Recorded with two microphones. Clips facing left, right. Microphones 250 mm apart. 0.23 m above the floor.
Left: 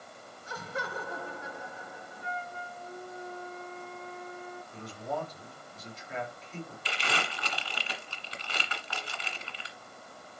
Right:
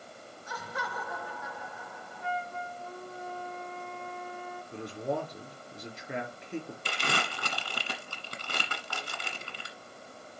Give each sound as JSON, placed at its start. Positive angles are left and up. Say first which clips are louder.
{"t": 0.5, "sound": "laughter", "louder": "left 2 dB", "side_deg": 30, "distance_m": 3.0}
{"t": 2.2, "sound": "a flute", "louder": "right 5 dB", "side_deg": -85, "distance_m": 6.5}
{"t": 4.7, "sound": "a man speaking", "louder": "right 5 dB", "side_deg": -70, "distance_m": 4.0}
{"t": 6.8, "sound": "crumpling", "louder": "right 1 dB", "side_deg": -50, "distance_m": 1.5}